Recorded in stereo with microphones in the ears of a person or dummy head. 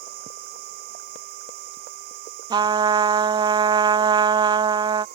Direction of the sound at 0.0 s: 55° right (ahead or behind).